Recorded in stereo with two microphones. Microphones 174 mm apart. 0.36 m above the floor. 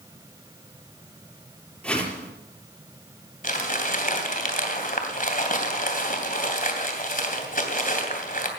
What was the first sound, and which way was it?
A whoosh, 5° left (ahead or behind).